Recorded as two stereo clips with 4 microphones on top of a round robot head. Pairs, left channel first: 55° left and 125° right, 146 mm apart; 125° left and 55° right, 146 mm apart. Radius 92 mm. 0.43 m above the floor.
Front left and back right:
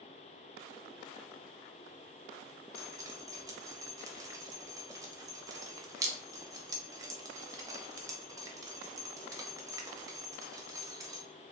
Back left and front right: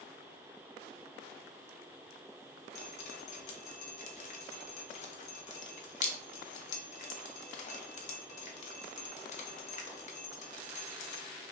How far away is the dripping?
About 0.7 m.